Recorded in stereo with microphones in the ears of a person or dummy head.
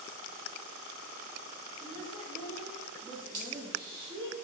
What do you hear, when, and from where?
1.8 s a woman speaking: 35° left (ahead or behind), 2 m; by 4.3 s 35° right (ahead or behind), 2 m
3.3 s a dropped coin: 25° right (ahead or behind), 3.5 m